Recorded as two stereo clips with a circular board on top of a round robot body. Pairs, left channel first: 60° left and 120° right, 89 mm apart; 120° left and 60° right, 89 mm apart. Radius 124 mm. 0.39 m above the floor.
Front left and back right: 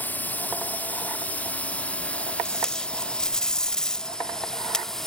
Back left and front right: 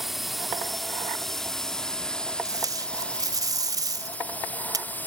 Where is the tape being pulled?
20° right.